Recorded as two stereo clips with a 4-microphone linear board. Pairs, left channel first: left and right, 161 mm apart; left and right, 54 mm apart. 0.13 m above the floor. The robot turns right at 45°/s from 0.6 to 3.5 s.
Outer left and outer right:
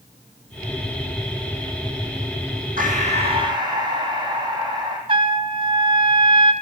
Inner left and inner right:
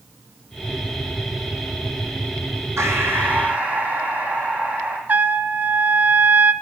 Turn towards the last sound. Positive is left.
turn(degrees=-30)  # may be behind; listen again after turning